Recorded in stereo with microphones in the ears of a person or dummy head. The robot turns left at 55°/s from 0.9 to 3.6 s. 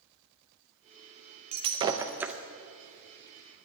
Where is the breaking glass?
130° right, 0.6 m; by 2.4 s straight behind, 0.6 m.